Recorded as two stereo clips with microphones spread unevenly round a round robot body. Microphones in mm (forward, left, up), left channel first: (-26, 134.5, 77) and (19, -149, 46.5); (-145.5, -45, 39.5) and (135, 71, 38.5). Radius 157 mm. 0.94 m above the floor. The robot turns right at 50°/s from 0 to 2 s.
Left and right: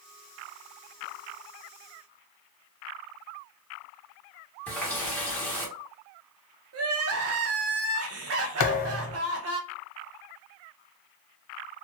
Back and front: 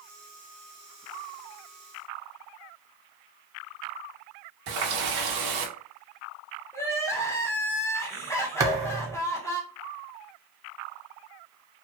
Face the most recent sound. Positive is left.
turn(degrees=100)